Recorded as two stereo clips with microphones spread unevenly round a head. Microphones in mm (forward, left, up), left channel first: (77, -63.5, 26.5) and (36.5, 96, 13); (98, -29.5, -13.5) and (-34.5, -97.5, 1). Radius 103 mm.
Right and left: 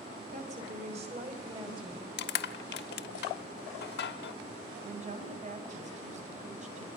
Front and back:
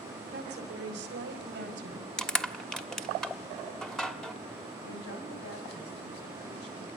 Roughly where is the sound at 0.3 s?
Behind.